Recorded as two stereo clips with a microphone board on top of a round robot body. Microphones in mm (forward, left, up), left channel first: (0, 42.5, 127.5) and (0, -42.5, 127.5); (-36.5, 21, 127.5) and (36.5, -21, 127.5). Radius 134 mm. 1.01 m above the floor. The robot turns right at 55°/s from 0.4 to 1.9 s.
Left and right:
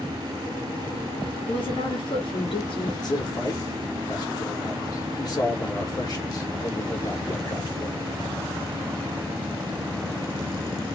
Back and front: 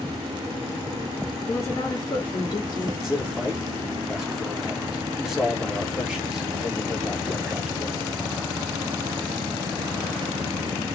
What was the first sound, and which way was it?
A woman speaking, 85° left.